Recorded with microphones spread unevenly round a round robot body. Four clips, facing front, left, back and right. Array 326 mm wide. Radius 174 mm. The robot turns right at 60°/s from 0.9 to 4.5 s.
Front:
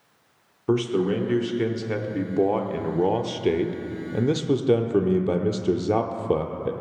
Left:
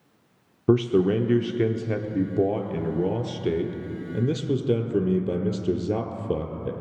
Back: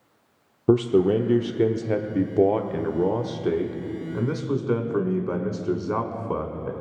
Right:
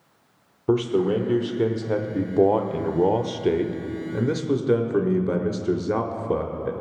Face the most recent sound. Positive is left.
turn(degrees=10)